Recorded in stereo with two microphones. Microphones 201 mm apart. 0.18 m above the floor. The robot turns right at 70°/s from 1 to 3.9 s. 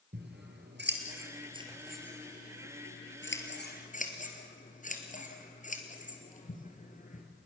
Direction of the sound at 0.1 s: 60° right (ahead or behind).